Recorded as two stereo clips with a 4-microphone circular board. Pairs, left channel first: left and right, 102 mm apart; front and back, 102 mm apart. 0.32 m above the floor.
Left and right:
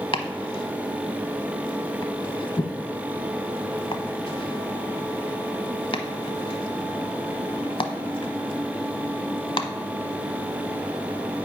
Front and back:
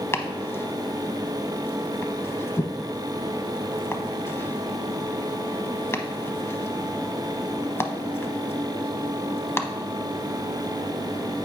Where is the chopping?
65° left, 0.7 m.